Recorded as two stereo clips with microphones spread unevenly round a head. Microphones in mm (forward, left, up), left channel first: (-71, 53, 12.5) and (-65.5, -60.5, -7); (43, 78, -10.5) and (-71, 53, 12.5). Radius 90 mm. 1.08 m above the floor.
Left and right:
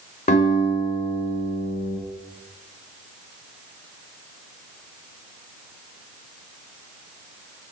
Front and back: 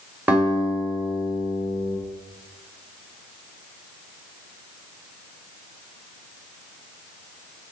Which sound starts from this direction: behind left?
A guitar, at 0.3 s.